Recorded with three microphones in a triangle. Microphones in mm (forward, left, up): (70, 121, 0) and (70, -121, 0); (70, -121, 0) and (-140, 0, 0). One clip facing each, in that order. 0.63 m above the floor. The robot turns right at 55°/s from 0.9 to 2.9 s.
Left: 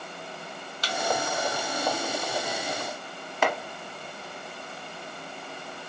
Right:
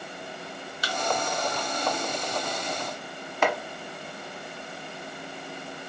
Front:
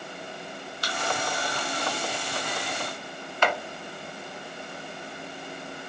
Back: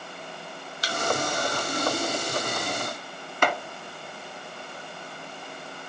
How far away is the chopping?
About 0.9 m.